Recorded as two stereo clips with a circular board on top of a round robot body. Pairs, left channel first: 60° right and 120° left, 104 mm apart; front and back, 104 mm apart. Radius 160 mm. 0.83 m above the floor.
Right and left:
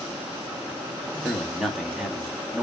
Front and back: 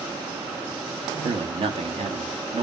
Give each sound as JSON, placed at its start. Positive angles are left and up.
{"t": 1.2, "sound": "a man speaking", "azimuth_deg": -155, "distance_m": 1.7}